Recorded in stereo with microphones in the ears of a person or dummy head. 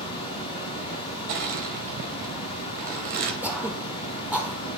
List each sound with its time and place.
0.0 s running water: 35° left (ahead or behind), 4.5 m
1.3 s crushing: 45° right (ahead or behind), 1.9 m
3.4 s throat clearing: 10° right (ahead or behind), 2 m